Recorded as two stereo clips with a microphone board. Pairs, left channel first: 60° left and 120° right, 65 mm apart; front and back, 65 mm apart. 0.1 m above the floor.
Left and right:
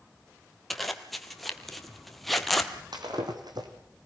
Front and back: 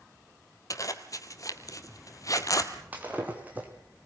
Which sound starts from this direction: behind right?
Breaking glass, at 2.9 s.